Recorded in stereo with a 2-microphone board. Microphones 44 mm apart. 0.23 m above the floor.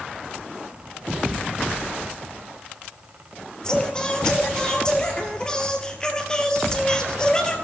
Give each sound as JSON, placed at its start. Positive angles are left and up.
{"t": 3.6, "sound": "singing", "side_deg": 20, "distance_m": 1.9}